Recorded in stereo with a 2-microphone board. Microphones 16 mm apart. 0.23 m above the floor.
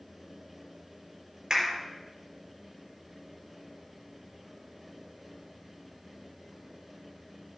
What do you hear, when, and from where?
1.5 s a clap: 50° right (ahead or behind), 4 m